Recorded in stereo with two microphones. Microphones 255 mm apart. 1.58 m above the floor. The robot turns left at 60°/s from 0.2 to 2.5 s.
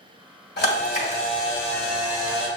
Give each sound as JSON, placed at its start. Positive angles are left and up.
{"t": 0.6, "sound": "a camera shutter", "azimuth_deg": 75, "distance_m": 1.7}